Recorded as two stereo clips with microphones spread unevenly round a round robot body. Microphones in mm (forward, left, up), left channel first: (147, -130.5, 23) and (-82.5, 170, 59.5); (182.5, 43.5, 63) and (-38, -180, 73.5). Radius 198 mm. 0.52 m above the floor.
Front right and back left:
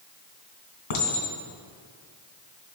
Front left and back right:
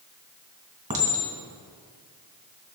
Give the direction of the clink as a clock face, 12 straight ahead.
2 o'clock.